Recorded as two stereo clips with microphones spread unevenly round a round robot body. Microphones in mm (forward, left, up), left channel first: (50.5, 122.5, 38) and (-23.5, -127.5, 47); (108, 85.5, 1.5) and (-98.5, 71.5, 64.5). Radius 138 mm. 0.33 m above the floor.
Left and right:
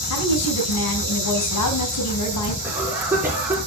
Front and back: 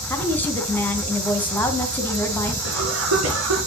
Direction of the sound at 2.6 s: 170° left.